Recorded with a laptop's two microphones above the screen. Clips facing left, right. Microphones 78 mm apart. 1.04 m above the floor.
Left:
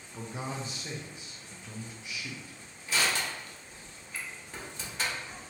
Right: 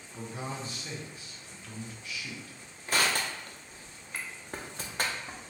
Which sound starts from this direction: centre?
A man speaking, at 0.1 s.